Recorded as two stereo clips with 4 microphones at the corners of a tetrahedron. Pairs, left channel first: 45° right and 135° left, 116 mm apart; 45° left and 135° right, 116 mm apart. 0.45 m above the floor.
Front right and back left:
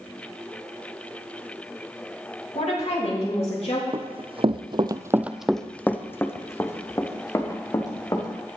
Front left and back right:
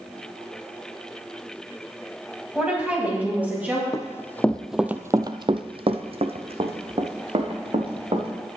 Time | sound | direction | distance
2.5 | a woman speaking | 55° right | 3.5 m
3.9 | running footsteps | 105° left | 0.9 m